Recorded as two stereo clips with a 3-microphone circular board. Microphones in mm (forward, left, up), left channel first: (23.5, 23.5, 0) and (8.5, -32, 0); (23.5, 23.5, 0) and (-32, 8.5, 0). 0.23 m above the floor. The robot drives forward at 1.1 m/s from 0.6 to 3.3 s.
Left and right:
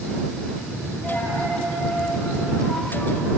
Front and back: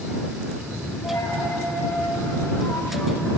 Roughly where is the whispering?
I don't hear whispering.